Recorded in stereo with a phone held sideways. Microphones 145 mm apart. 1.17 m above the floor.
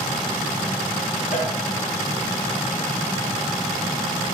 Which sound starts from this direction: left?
A cowbell, at 1.3 s.